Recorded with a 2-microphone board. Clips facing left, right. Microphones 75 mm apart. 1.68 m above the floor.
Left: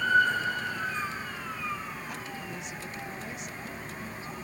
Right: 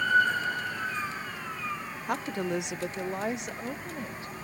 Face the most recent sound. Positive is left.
turn(degrees=-80)